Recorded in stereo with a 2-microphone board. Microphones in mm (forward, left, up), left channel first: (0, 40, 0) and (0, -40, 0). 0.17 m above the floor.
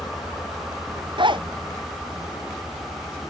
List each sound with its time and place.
1.2 s a zipper: 80° right